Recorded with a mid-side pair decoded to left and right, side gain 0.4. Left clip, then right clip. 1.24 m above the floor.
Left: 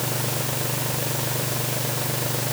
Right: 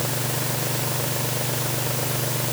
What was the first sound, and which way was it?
Only background noise.